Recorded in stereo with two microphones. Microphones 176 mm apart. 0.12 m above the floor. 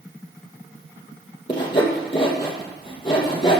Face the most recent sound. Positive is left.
turn(degrees=30)  # may be behind; listen again after turning